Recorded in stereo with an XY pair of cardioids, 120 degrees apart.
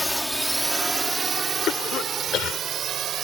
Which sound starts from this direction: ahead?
A drone, at 0.0 s.